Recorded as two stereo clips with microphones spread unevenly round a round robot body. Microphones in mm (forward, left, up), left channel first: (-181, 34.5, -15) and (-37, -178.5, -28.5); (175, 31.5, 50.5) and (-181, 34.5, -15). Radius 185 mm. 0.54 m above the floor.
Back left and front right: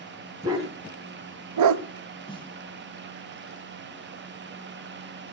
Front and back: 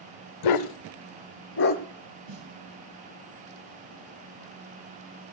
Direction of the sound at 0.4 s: 25° left.